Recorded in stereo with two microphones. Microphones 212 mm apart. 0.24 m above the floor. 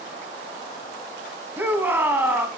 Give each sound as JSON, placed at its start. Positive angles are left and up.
{"t": 1.6, "sound": "a shout", "side_deg": -10, "distance_m": 2.0}